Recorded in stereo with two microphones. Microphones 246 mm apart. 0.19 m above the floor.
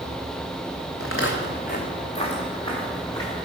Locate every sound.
1.0 s footsteps: 65° left (ahead or behind), 0.8 m; by 3.5 s 10° left (ahead or behind), 2.5 m